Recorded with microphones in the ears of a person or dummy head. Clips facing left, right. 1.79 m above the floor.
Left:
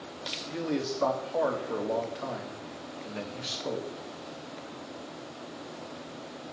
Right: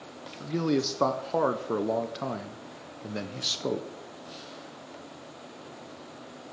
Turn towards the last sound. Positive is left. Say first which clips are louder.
# right 5 dB
turn(degrees=-60)  # may be behind; listen again after turning